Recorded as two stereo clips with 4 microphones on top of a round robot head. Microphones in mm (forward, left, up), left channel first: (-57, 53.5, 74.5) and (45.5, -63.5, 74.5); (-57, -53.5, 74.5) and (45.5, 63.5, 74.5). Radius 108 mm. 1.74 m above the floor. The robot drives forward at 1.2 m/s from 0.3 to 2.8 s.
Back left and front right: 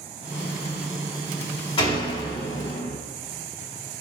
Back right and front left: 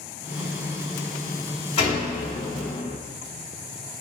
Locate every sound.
1.8 s a door slam: 175° right, 2.5 m